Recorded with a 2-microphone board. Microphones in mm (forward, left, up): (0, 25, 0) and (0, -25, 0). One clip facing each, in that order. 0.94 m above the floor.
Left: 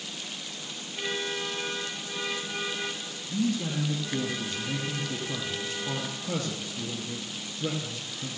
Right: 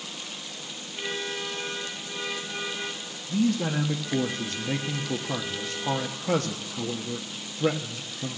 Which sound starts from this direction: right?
A man speaking, at 3.3 s.